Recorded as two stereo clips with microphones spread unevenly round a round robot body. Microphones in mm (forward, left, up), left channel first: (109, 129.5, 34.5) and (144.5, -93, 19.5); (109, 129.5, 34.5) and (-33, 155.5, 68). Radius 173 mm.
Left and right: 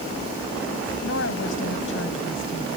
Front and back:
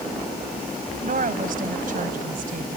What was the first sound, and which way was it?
A woman speaking, 155° left.